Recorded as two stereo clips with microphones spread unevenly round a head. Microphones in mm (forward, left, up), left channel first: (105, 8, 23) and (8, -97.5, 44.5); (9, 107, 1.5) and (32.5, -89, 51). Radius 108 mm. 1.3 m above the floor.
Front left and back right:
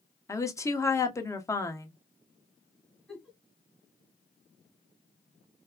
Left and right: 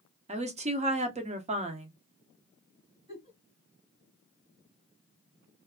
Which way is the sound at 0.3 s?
20° right.